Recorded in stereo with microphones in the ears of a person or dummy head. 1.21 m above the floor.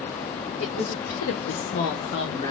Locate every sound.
0.6 s a woman speaking: 65° left (ahead or behind), 1.0 m; by 2.5 s 20° left (ahead or behind), 0.9 m